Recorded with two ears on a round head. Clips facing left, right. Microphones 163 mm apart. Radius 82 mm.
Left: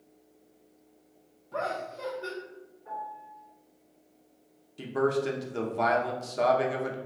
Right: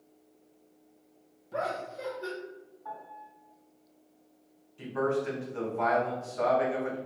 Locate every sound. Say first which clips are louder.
1.5 s laughter: even; 20° right (ahead or behind), 1.4 m
2.9 s a piano: left 5 dB; 85° right, 1.8 m
4.8 s a man speaking: left 2 dB; 45° left (ahead or behind), 1.0 m